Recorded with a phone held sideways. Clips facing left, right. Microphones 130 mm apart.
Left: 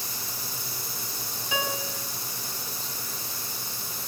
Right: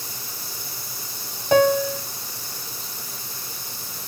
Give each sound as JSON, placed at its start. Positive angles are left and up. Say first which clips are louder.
{"t": 1.5, "sound": "a piano", "louder": "right 15 dB", "side_deg": -60, "distance_m": 1.8}